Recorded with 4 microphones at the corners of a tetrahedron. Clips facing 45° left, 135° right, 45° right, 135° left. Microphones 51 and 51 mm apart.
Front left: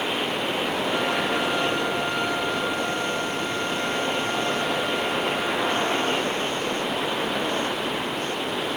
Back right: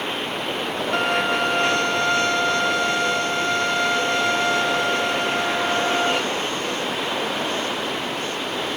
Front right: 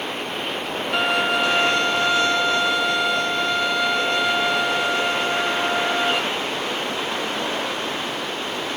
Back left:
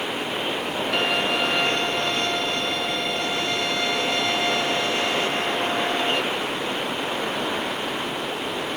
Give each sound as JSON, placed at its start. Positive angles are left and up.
{"t": 0.9, "sound": "a violin", "azimuth_deg": -130, "distance_m": 0.5}